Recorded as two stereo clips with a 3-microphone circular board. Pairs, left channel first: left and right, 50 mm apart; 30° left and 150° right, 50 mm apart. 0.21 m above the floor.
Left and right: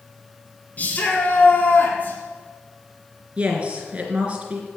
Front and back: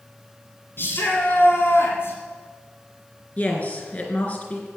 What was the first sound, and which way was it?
A shout, 45° left.